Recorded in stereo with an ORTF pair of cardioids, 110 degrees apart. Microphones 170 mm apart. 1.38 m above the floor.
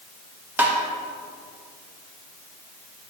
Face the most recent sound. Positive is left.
turn(degrees=-10)